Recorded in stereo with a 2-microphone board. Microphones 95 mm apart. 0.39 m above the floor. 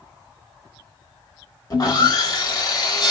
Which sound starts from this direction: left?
Sawing, at 1.7 s.